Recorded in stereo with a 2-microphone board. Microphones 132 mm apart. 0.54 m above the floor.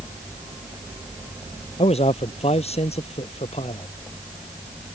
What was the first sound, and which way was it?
A man speaking, 50° left (ahead or behind).